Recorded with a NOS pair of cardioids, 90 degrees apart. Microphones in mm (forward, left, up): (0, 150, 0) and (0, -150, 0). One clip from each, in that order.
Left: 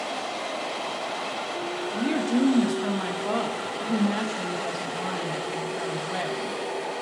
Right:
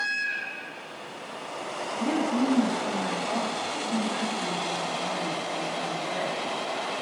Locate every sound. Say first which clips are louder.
1.9 s a woman speaking: even; 50° left, 1.4 m